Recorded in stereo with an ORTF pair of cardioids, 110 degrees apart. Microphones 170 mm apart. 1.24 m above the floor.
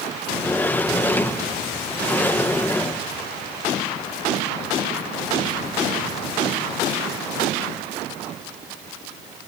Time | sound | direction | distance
0.3 | a sliding door | 10° left | 1.1 m